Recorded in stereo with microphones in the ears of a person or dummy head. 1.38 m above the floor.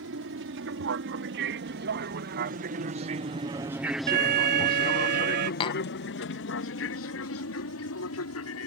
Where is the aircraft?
65° right (ahead or behind); by 8.7 s 70° left (ahead or behind).